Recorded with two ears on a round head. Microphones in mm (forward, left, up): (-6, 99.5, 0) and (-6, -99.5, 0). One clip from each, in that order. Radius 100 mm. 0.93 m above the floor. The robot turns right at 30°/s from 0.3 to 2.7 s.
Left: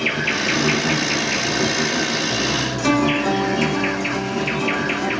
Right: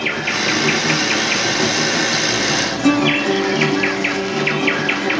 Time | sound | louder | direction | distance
0.0 | an insect | right 1 dB | 170° right | 0.9 m
2.8 | a guitar | right 1 dB | 15° left (ahead or behind) | 1.0 m